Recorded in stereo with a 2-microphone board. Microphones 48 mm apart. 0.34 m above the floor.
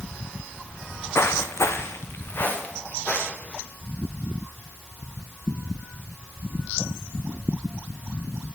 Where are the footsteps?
40° left (ahead or behind), 1.3 m; by 3.6 s 25° left (ahead or behind), 3 m.